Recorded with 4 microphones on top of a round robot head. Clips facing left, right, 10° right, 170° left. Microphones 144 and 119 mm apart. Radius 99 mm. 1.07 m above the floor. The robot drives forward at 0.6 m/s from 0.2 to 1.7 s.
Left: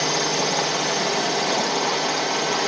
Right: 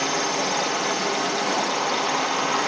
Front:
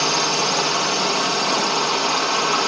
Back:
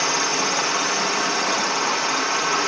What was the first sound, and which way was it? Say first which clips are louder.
A drone: left 1 dB, front 2 dB; 45° left.